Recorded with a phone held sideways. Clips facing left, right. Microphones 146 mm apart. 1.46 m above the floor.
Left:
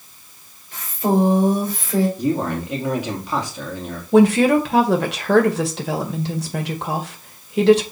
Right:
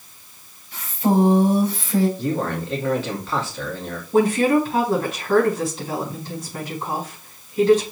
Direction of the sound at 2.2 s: 15° left (ahead or behind).